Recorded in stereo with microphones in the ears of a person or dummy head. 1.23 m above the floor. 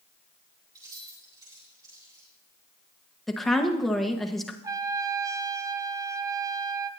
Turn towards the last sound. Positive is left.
turn(degrees=-25)  # may be behind; listen again after turning